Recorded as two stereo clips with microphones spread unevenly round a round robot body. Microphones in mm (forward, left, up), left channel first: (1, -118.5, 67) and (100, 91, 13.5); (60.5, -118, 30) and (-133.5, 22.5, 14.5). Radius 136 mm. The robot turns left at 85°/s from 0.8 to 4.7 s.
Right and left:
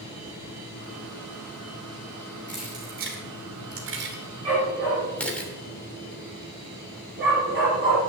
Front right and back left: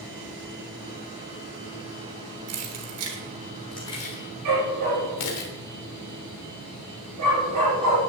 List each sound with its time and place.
2.5 s keys jangling: 160° left, 3 m; by 5.5 s 30° right, 3 m
4.5 s a dog barking: 135° left, 5.5 m; by 8.0 s 115° left, 5.5 m